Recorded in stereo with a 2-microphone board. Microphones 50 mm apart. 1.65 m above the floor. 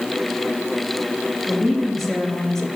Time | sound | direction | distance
1.5 | a woman speaking | centre (ahead or behind) | 3.5 m